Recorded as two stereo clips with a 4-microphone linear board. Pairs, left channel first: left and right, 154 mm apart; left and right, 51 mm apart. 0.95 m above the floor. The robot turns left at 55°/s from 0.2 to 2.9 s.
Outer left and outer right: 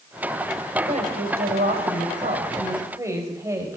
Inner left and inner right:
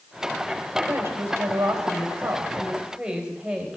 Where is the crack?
No crack in this recording.